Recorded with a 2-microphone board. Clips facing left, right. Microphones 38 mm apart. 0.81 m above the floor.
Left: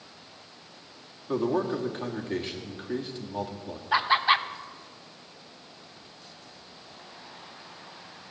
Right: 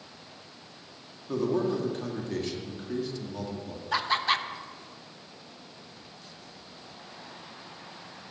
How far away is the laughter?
About 0.5 m.